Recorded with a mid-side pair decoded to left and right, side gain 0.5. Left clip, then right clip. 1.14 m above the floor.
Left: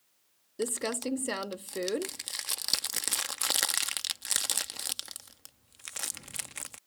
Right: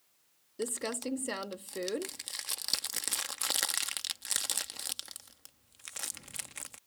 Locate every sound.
0.6 s crumpling: 20° left